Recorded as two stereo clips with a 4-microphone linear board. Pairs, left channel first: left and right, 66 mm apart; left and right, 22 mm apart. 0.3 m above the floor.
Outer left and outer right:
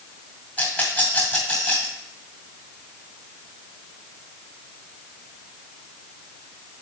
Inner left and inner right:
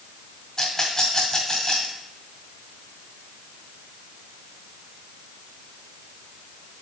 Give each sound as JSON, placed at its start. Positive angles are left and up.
{"t": 0.6, "sound": "a rattle", "side_deg": 20, "distance_m": 2.0}